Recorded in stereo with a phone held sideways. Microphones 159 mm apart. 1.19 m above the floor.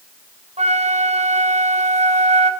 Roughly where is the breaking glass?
No breaking glass in this recording.